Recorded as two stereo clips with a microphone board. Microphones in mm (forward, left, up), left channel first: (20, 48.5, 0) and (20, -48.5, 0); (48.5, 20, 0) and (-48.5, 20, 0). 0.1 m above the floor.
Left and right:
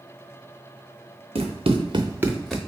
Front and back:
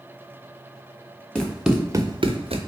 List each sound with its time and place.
1.4 s running footsteps: 80° right, 1.2 m; by 2.6 s 175° left, 0.9 m